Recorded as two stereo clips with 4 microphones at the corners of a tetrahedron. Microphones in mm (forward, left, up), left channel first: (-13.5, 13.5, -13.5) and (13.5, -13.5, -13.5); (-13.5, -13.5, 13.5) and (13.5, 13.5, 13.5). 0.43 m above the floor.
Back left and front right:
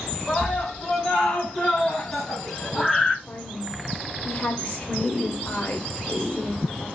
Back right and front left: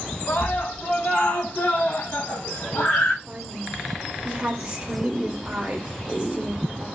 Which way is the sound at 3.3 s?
95° left.